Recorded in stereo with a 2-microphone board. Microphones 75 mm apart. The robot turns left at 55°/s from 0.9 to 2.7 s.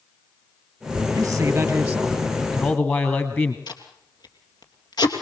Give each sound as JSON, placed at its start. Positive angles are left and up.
{"t": 1.1, "sound": "a man speaking", "azimuth_deg": -125, "distance_m": 3.0}
{"t": 3.7, "sound": "tape being pulled", "side_deg": 70, "distance_m": 3.0}